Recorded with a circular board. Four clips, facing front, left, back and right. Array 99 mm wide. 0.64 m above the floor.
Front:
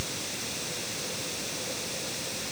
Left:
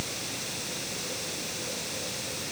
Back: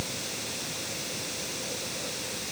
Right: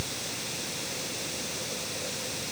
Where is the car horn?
I don't hear a car horn.